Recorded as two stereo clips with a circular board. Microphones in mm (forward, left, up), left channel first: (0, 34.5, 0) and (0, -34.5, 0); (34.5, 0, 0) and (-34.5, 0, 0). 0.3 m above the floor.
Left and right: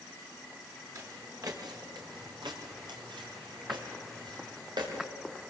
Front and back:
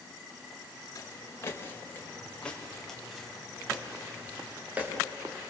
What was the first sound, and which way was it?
Footsteps, 45° right.